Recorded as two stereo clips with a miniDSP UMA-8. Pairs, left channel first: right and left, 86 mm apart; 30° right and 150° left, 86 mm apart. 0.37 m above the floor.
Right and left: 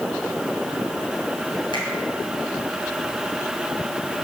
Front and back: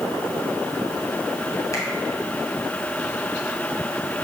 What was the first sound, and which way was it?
A finger snap, 75° right.